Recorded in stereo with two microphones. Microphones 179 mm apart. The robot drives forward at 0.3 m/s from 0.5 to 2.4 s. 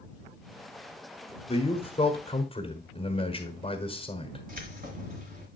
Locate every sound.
1.5 s a man speaking: 35° left (ahead or behind), 1.2 m; by 4.5 s 30° left (ahead or behind), 1.3 m
4.5 s keys jangling: 55° right (ahead or behind), 2.0 m